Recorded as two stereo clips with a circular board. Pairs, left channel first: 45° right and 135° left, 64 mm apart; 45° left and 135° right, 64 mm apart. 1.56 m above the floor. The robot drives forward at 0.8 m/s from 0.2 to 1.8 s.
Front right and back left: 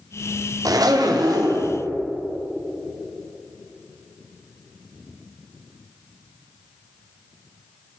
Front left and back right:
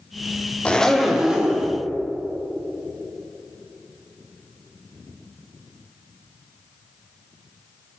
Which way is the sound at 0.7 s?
115° left.